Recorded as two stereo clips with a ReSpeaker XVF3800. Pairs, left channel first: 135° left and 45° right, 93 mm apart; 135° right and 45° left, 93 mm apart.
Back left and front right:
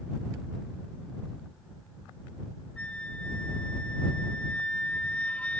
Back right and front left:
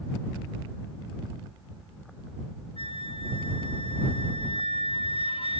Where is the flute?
150° right.